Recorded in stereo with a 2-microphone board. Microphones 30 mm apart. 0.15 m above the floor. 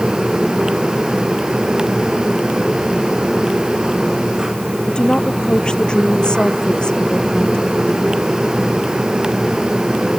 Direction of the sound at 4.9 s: 30° left (ahead or behind).